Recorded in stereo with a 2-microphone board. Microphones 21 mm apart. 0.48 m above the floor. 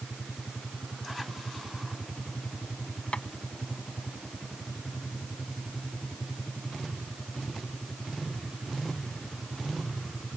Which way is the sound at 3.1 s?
70° left (ahead or behind).